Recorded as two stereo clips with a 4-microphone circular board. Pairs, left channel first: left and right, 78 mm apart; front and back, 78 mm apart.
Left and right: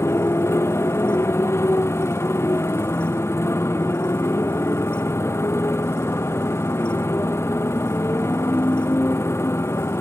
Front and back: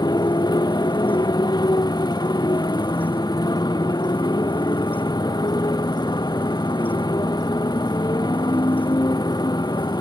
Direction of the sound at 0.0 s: 35° left.